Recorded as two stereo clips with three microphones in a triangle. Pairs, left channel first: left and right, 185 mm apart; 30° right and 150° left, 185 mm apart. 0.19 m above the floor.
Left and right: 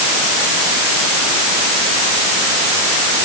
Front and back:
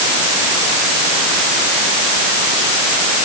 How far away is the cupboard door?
No cupboard door in this recording.